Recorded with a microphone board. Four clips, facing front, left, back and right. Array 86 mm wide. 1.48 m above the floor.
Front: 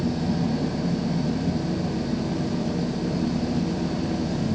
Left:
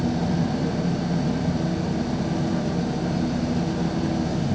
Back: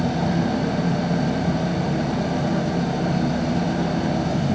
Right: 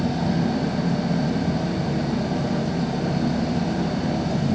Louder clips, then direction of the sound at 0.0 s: Right 1 dB, back 3 dB; 170° right.